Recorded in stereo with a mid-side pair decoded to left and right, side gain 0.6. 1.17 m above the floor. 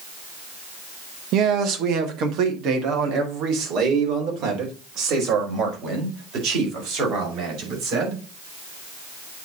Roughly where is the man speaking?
Ahead right.